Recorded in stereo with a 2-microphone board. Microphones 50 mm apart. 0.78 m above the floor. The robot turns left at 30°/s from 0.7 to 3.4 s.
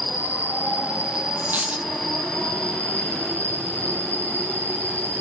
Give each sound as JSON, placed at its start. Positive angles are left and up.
{"t": 0.0, "sound": "an insect", "azimuth_deg": -145, "distance_m": 1.8}
{"t": 1.4, "sound": "a dropped coin", "side_deg": -45, "distance_m": 1.6}